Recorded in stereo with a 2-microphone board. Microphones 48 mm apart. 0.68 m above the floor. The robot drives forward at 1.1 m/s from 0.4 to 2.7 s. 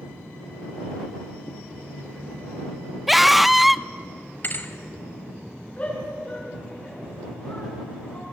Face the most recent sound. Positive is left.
turn(degrees=30)  # may be behind; listen again after turning